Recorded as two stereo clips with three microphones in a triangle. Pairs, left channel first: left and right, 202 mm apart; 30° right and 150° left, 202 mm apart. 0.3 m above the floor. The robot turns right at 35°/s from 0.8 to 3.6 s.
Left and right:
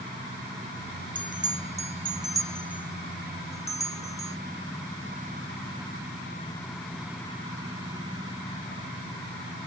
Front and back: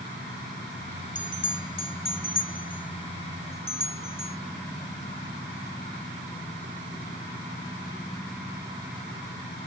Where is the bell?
65° right, 0.7 m; by 4.4 s 20° left, 0.7 m.